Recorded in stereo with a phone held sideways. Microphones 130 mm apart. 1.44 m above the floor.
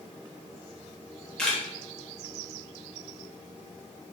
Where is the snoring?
I don't hear snoring.